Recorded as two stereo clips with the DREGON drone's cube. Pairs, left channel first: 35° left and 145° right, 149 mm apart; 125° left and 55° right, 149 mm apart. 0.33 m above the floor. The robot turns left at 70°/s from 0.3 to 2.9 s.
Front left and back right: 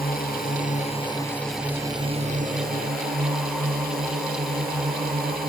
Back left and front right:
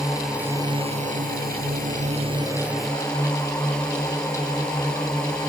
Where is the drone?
30° left; by 5.5 s 150° right.